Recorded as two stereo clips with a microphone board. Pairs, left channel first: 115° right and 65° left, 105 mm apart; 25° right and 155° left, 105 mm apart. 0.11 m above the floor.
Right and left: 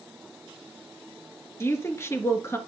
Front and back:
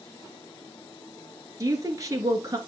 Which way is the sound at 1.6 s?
165° right.